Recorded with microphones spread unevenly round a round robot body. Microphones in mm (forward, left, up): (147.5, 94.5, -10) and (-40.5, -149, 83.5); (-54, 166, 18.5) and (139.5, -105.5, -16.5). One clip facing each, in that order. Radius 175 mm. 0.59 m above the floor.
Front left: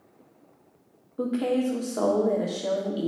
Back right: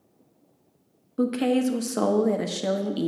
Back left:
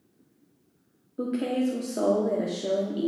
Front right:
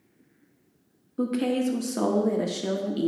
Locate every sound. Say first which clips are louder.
1.2 s a woman speaking: back right 3 dB, front right 2 dB; 95° right, 0.8 m